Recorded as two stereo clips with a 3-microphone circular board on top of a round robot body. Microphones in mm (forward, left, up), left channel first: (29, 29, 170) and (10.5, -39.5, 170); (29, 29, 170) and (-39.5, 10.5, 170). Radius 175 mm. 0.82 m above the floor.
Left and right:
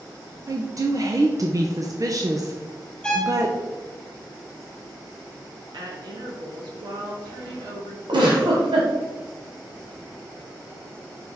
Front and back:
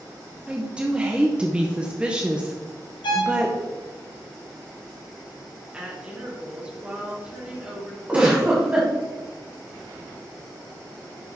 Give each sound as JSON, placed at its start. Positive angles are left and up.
{"t": 0.5, "sound": "a woman speaking", "azimuth_deg": -95, "distance_m": 1.1}
{"t": 3.0, "sound": "a violin", "azimuth_deg": -5, "distance_m": 1.1}
{"t": 5.7, "sound": "a woman speaking", "azimuth_deg": -90, "distance_m": 2.5}
{"t": 8.1, "sound": "a giggle", "azimuth_deg": -90, "distance_m": 1.8}